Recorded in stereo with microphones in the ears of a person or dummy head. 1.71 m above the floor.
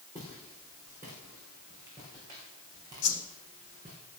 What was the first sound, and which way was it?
Footsteps, 10° right (ahead or behind).